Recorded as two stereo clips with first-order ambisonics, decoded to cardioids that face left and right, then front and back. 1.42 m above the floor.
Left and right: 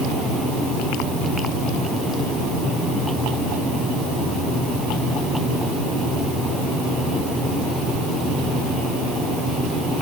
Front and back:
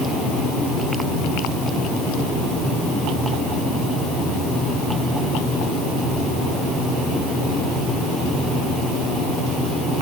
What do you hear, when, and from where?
Only background noise.